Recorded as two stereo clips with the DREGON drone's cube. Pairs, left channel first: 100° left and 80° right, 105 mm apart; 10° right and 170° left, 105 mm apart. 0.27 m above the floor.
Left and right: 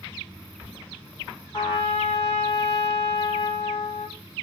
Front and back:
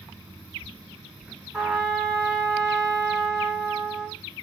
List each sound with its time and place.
1.5 s a trumpet: 75° left, 1.3 m